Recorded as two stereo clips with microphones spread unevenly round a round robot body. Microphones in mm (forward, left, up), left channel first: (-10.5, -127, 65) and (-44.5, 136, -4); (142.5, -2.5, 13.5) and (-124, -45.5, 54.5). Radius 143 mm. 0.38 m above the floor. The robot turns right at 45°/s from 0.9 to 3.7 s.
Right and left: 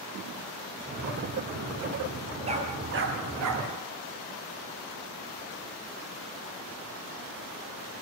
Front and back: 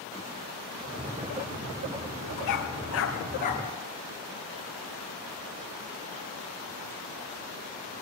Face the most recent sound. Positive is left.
turn(degrees=85)